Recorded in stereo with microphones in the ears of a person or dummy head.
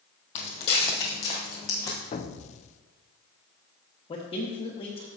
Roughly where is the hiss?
I don't hear a hiss.